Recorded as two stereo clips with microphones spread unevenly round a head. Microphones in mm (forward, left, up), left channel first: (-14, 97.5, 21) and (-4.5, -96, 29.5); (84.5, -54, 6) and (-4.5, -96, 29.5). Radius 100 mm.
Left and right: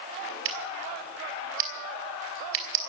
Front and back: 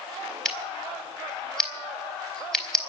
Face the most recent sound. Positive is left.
turn(degrees=-65)